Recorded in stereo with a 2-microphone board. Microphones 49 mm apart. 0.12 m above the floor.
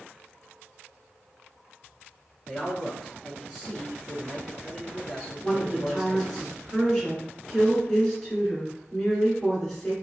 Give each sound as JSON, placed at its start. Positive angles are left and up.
{"t": 2.5, "sound": "a man speaking", "side_deg": -5, "distance_m": 1.1}
{"t": 5.4, "sound": "a woman speaking", "side_deg": 5, "distance_m": 1.5}